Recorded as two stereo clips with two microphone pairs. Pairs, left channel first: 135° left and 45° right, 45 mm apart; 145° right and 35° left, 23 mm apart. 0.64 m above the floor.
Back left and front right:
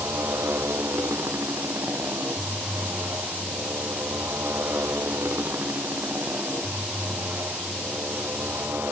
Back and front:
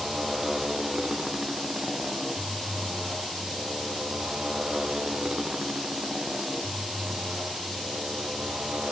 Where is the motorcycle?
35° right; by 8.9 s 10° right.